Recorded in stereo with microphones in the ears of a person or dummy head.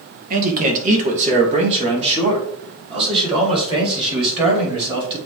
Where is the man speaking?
45° right (ahead or behind), 1.7 m; by 5.2 s 25° right (ahead or behind), 4.5 m.